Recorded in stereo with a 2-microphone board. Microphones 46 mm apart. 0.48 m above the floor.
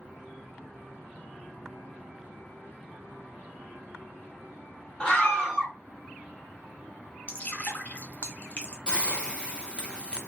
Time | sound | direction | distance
5.0 | a scream | 15° left (ahead or behind) | 1.3 m
7.3 | dripping | 30° left (ahead or behind) | 0.9 m
8.9 | a hiss | 20° left (ahead or behind) | 0.7 m